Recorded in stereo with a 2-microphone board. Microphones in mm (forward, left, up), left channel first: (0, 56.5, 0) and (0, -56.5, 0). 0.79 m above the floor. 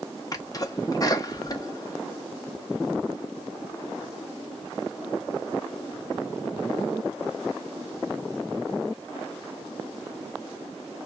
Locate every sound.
0.3 s a sneeze: 30° left (ahead or behind), 1.0 m